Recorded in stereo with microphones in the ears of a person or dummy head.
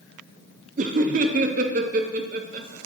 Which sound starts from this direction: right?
Laughter, at 0.8 s.